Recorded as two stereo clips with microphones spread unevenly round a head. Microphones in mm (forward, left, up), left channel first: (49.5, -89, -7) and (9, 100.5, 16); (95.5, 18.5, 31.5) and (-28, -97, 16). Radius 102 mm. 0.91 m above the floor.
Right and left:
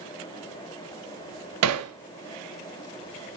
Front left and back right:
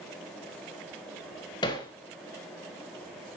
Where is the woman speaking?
I don't hear a woman speaking.